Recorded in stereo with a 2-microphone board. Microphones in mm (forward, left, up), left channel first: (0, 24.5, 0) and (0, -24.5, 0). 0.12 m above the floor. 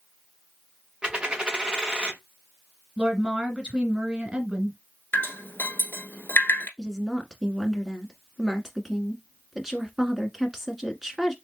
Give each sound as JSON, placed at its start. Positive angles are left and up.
{"t": 1.0, "sound": "a dropped coin", "side_deg": -15, "distance_m": 0.8}
{"t": 3.0, "sound": "a woman speaking", "side_deg": -25, "distance_m": 1.4}
{"t": 5.1, "sound": "dripping", "side_deg": 45, "distance_m": 1.3}
{"t": 6.8, "sound": "a woman speaking", "side_deg": -5, "distance_m": 1.1}